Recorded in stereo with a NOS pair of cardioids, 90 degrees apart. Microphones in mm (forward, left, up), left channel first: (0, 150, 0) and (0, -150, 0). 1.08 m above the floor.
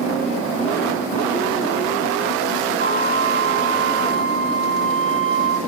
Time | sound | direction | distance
2.8 | a flute | 25° left | 7.5 m